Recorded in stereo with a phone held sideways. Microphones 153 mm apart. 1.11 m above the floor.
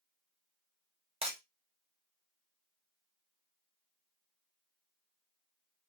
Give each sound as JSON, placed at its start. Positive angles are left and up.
{"t": 1.2, "sound": "breaking glass", "side_deg": -40, "distance_m": 0.9}